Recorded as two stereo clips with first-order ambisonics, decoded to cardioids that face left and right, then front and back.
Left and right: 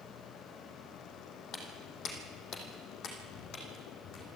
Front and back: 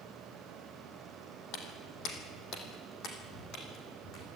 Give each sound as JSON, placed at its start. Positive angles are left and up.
{"t": 1.5, "sound": "footsteps", "azimuth_deg": 30, "distance_m": 3.5}